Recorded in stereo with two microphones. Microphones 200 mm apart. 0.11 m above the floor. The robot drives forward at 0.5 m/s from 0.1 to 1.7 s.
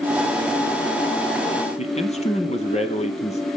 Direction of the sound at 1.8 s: 35° left (ahead or behind).